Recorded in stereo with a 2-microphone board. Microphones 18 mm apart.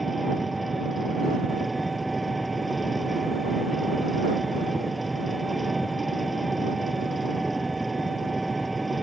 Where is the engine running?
5° right (ahead or behind).